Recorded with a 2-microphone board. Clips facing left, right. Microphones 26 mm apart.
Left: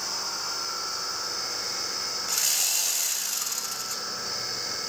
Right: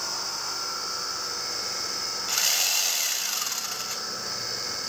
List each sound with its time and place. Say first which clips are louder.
2.3 s sawing: right 3 dB; 25° right (ahead or behind), 2 m